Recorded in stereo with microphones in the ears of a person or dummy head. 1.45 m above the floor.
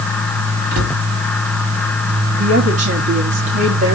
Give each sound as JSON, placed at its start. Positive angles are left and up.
{"t": 0.7, "sound": "a cupboard door", "side_deg": -45, "distance_m": 5.0}
{"t": 2.3, "sound": "a woman speaking", "side_deg": -40, "distance_m": 3.0}